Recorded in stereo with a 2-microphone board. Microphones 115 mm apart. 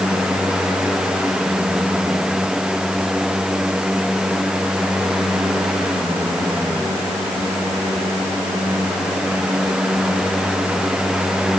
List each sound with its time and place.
Only background noise.